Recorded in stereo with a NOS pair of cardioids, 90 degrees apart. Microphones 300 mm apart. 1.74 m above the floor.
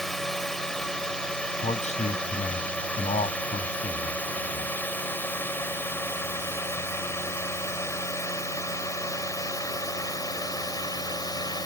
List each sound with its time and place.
0.0 s a drone: straight ahead; by 11.7 s 15° left
1.6 s a man speaking: 25° left